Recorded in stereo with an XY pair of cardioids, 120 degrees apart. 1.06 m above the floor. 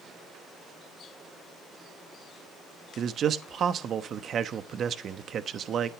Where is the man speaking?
45° right, 1.1 m.